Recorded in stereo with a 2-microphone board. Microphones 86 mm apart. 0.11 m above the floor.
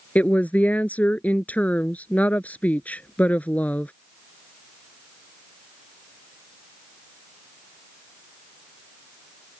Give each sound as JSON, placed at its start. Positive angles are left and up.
{"t": 0.1, "sound": "a woman speaking", "side_deg": 20}